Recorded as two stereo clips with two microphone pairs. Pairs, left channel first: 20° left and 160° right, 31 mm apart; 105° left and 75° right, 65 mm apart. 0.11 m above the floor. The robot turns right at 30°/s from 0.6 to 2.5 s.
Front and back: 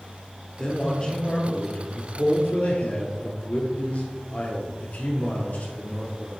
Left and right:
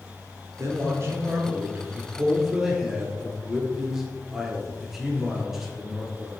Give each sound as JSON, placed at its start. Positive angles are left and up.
{"t": 0.6, "sound": "a man speaking", "azimuth_deg": -50, "distance_m": 1.8}